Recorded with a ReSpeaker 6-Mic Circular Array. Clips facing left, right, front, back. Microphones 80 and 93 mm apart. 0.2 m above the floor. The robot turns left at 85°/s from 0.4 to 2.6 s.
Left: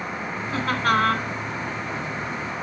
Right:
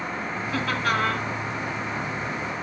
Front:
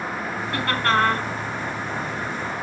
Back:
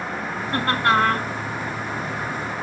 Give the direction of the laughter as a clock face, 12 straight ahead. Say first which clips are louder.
Left 4 dB, back 2 dB; 7 o'clock.